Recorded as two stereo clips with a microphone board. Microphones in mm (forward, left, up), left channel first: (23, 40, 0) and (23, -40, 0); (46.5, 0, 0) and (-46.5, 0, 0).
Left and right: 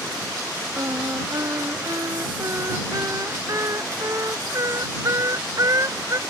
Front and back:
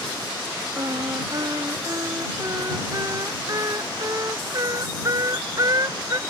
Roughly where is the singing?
Behind right.